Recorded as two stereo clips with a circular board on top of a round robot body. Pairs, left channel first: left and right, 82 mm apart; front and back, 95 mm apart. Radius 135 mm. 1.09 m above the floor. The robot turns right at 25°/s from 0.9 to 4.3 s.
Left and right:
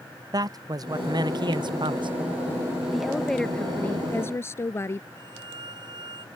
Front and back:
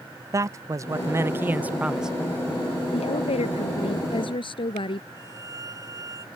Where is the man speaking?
125° right; by 2.1 s 95° right.